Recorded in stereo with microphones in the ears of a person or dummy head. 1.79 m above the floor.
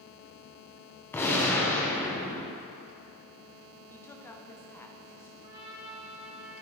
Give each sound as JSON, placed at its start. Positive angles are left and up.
{"t": 1.1, "sound": "a gunshot", "side_deg": 15, "distance_m": 0.9}
{"t": 3.9, "sound": "a woman speaking", "side_deg": 15, "distance_m": 0.6}
{"t": 5.4, "sound": "a trumpet", "side_deg": -30, "distance_m": 2.5}